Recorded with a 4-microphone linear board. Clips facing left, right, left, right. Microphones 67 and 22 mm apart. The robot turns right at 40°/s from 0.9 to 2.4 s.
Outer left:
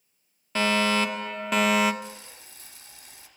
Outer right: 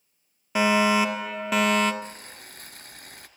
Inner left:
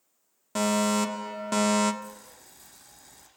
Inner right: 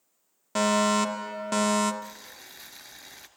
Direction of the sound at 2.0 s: 45° right (ahead or behind).